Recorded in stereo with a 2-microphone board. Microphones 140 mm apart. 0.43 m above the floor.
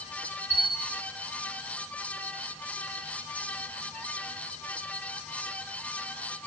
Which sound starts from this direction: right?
A bell, at 0.5 s.